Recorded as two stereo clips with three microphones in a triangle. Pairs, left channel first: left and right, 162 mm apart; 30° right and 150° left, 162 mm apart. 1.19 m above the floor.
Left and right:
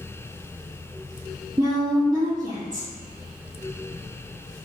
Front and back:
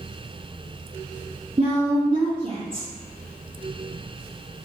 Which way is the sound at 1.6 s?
155° right.